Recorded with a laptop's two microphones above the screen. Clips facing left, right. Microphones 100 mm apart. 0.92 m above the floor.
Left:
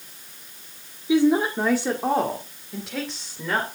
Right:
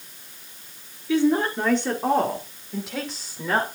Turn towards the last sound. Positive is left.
turn(degrees=-5)  # may be behind; listen again after turning